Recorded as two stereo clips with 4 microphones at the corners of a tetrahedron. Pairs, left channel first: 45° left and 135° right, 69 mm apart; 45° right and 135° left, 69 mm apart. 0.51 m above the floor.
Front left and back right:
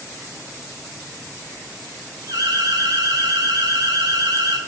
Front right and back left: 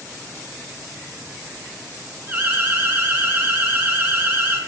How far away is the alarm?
About 1.4 m.